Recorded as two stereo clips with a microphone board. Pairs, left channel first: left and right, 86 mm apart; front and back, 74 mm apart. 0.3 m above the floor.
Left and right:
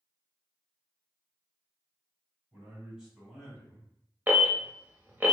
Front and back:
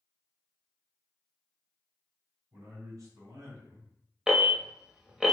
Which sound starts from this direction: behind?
A man speaking, at 2.5 s.